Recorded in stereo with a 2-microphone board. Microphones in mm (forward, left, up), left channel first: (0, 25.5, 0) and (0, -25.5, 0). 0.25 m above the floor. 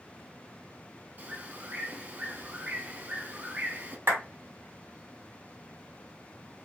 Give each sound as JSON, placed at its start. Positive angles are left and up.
{"t": 1.2, "sound": "a bird", "side_deg": -35, "distance_m": 0.6}
{"t": 4.1, "sound": "a clap", "side_deg": -50, "distance_m": 2.0}